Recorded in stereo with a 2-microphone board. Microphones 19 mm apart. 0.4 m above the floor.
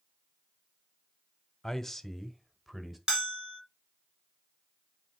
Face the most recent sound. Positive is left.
turn(degrees=-30)  # may be behind; listen again after turning